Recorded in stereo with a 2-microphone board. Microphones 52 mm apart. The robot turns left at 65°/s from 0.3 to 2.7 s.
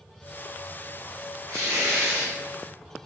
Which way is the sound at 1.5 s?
70° right.